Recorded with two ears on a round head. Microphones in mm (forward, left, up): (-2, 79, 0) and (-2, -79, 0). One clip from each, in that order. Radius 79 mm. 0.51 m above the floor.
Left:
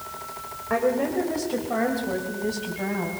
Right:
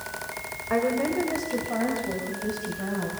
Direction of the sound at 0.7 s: Centre (ahead or behind).